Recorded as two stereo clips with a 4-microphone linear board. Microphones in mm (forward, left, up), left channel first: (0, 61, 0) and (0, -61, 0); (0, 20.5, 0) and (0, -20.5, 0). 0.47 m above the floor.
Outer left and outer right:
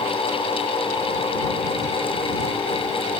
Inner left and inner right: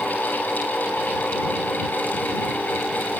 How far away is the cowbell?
No cowbell in this recording.